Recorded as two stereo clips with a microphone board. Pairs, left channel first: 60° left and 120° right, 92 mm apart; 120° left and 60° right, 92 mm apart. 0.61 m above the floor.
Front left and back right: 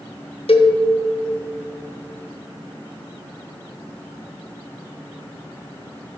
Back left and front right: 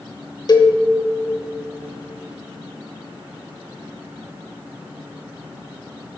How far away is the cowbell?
About 1.0 m.